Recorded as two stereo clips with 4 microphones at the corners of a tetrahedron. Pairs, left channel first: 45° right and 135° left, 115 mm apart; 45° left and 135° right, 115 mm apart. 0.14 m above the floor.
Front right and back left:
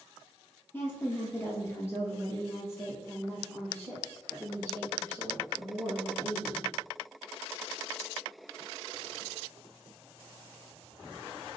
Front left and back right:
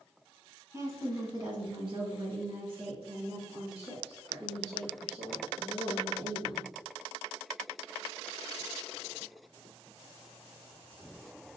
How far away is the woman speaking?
About 1.2 m.